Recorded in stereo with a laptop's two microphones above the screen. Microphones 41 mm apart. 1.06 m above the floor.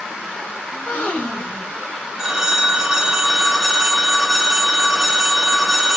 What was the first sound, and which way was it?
A gasp, 30° left (ahead or behind).